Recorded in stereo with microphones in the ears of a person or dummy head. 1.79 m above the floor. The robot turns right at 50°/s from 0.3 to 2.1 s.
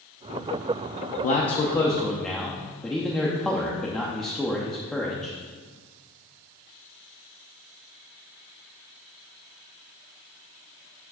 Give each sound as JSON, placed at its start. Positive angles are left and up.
{"t": 1.2, "sound": "a man speaking", "azimuth_deg": 130, "distance_m": 0.5}